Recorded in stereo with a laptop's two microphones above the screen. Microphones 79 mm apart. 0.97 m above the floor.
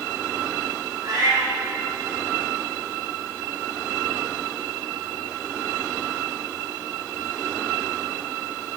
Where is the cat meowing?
55° right (ahead or behind), 2.5 m.